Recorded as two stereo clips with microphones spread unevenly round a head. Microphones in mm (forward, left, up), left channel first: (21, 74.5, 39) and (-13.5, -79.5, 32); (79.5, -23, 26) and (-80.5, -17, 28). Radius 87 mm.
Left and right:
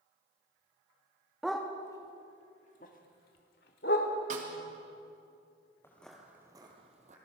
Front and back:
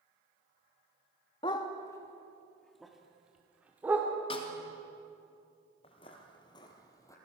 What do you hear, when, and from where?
1.4 s a dog barking: 10° right, 1.2 m; by 4.1 s 100° left, 2.5 m
4.3 s a snare drum: 60° right, 3 m
5.8 s footsteps: 20° left, 2.0 m; by 7.2 s 70° right, 2.5 m